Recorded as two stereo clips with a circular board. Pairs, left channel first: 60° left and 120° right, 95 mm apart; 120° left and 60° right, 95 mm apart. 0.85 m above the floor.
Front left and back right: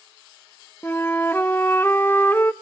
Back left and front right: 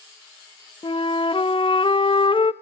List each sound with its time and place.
0.8 s a flute: 125° left, 0.5 m